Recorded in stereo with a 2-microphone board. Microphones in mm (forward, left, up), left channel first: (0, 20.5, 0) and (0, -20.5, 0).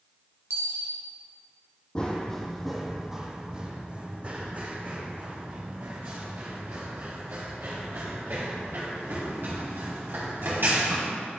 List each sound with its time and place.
0.5 s a dropped coin: 85° right, 1.7 m
1.9 s running footsteps: 20° left (ahead or behind), 1.0 m; by 11.0 s 65° right (ahead or behind), 4.5 m